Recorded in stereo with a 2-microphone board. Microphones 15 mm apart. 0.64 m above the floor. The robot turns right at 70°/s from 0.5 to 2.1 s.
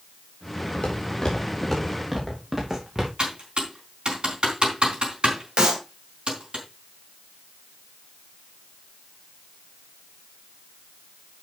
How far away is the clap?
About 3 m.